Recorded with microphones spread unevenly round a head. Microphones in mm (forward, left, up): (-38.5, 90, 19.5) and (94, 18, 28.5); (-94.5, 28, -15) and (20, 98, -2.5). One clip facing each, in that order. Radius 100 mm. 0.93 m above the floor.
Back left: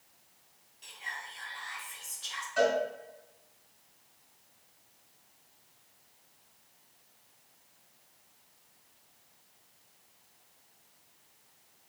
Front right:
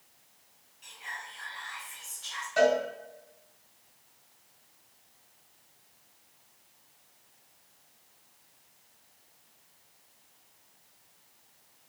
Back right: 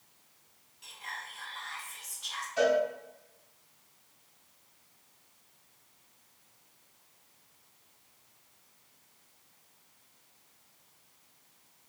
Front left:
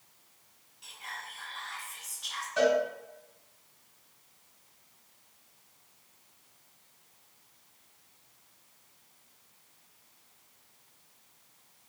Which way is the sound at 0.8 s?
125° left.